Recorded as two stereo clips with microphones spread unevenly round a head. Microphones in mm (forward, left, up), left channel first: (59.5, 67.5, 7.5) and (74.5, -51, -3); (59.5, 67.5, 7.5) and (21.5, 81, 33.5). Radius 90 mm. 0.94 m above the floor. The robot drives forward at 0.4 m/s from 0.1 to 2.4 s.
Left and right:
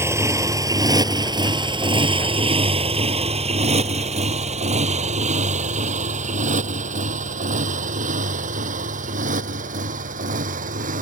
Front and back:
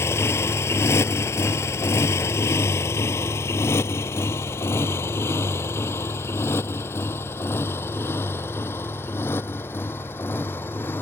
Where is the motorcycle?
15° right; by 11.0 s 75° right.